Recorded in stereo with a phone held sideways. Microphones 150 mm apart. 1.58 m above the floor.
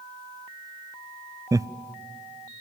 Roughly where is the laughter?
Right.